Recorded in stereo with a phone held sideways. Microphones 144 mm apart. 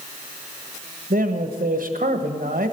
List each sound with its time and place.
1.1 s a man speaking: 75° right (ahead or behind), 1.3 m